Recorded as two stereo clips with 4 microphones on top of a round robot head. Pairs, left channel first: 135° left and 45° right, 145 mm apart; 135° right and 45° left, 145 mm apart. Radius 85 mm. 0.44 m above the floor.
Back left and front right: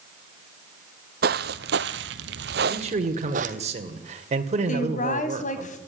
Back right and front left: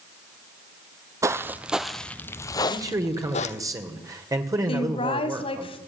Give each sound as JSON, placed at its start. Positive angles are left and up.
{"t": 1.2, "sound": "footsteps", "azimuth_deg": -25, "distance_m": 1.1}
{"t": 2.7, "sound": "a man speaking", "azimuth_deg": -20, "distance_m": 2.0}
{"t": 4.7, "sound": "a woman speaking", "azimuth_deg": 170, "distance_m": 3.0}